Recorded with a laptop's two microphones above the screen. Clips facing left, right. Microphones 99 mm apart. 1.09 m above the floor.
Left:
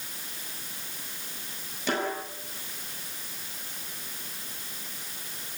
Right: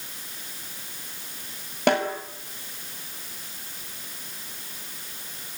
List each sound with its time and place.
1.9 s a snare drum: 65° right (ahead or behind), 5.5 m